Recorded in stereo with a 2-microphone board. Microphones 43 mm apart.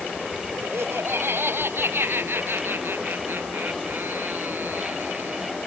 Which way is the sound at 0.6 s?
60° right (ahead or behind).